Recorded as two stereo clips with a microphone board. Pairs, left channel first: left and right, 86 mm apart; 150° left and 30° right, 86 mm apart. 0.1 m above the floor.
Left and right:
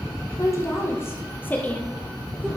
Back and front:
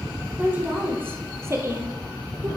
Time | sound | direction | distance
0.4 | a woman speaking | 40° left | 3 m